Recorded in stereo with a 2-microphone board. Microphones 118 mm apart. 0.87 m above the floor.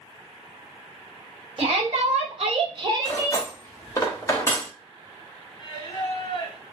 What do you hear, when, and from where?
1.6 s a shout: 55° right (ahead or behind), 1.1 m; by 3.5 s 20° right (ahead or behind), 1.3 m
3.0 s cutlery clinking: 25° left (ahead or behind), 0.8 m
5.6 s singing: 40° left (ahead or behind), 0.8 m